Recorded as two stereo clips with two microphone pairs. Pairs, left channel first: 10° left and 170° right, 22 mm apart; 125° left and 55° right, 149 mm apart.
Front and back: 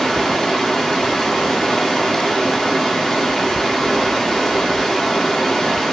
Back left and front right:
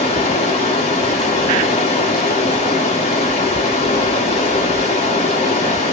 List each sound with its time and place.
0.0 s running water: 80° left, 1.8 m